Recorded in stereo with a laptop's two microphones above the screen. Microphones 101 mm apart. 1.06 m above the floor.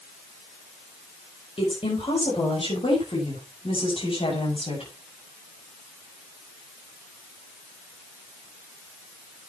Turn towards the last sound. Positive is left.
turn(degrees=65)  # may be behind; listen again after turning